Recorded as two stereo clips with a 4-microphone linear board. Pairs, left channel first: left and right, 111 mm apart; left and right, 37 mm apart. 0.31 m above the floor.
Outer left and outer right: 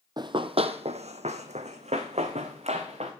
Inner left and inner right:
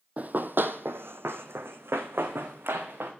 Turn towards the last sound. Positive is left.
turn(degrees=-65)  # may be behind; listen again after turning